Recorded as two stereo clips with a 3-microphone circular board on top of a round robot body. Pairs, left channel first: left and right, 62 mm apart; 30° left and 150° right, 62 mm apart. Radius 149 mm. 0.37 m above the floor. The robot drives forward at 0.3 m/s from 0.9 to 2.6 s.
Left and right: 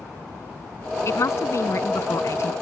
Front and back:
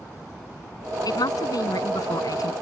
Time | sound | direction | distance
1.1 | a woman speaking | 45° left | ?